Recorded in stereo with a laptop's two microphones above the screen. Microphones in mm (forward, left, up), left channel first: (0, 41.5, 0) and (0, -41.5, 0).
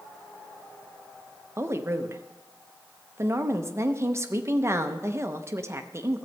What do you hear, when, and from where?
1.6 s a woman speaking: 30° right (ahead or behind), 0.6 m